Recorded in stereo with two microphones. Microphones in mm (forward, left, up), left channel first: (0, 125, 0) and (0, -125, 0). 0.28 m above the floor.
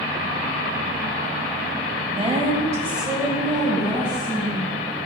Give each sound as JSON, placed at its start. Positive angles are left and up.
{"t": 2.1, "sound": "a woman speaking", "side_deg": -25, "distance_m": 1.4}